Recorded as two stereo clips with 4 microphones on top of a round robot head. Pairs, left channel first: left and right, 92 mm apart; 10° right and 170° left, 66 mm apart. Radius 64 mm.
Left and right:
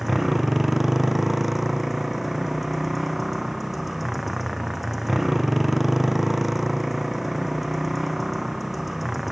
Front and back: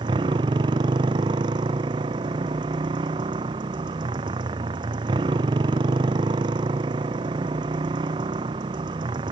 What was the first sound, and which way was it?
A motorcycle, straight behind.